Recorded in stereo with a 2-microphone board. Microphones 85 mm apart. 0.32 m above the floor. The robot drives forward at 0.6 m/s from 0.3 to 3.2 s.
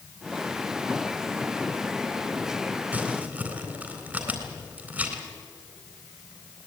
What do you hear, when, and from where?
2.9 s crumpling: 20° right (ahead or behind), 3.5 m